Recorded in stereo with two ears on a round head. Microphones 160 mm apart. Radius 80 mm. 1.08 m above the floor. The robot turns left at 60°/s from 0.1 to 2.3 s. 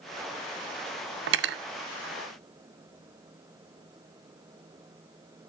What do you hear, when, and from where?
1.3 s cutlery clinking: 75° right (ahead or behind), 0.5 m; by 1.6 s 60° right (ahead or behind), 0.5 m